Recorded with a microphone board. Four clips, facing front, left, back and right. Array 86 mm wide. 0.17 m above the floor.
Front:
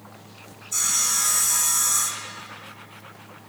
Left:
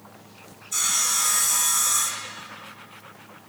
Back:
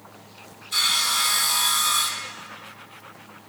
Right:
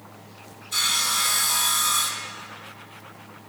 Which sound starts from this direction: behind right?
Sawing, at 0.7 s.